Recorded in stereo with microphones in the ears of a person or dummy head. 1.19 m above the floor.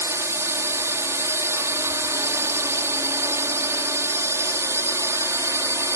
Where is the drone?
10° right (ahead or behind).